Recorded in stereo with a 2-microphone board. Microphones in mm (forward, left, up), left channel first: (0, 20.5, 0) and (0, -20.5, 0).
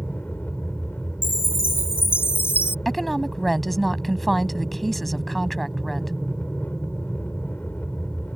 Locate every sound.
0.0 s an aircraft: 45° left (ahead or behind)
1.2 s a chime: 80° left
2.9 s a woman speaking: centre (ahead or behind)